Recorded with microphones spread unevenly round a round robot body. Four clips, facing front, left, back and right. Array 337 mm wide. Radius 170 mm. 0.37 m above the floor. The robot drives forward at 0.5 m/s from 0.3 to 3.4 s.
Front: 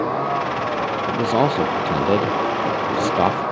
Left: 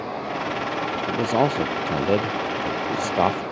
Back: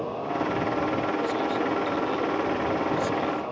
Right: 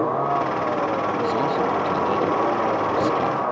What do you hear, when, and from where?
0.0 s a vehicle: 45° right
1.1 s a man speaking: 25° left